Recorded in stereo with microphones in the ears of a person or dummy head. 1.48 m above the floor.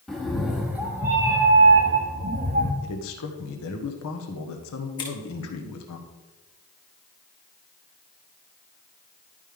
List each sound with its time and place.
0.1 s a cat meowing: centre (ahead or behind), 1.3 m; by 2.7 s 40° right (ahead or behind), 1.0 m
2.8 s a man speaking: 80° left, 1.3 m
5.0 s scissors: 25° left (ahead or behind), 1.7 m